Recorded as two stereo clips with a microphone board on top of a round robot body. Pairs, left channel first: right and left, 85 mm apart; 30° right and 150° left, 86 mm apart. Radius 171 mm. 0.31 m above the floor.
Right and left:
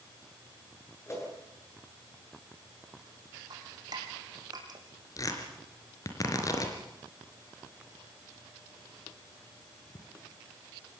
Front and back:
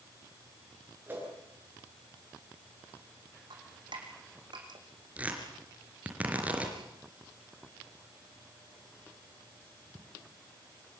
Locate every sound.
1.1 s a whoosh: 145° right, 8.5 m
3.5 s dripping: 130° left, 4.5 m
5.2 s tearing paper: 135° right, 4 m